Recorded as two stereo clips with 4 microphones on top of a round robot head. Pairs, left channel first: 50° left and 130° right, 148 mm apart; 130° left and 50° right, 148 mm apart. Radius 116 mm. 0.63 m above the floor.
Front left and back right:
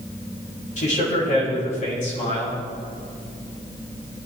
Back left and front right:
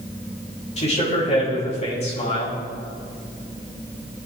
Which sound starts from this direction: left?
A man speaking, at 0.8 s.